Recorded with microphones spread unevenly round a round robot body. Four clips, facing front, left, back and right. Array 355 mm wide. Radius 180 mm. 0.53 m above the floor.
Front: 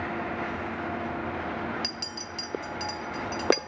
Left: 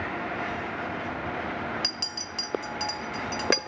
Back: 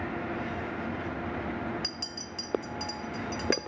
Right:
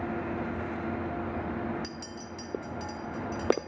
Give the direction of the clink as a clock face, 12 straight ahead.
10 o'clock.